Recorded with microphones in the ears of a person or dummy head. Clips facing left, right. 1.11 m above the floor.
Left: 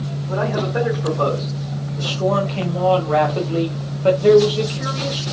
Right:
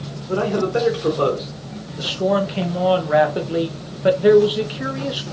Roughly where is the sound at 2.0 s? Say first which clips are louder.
Right 1 dB; centre.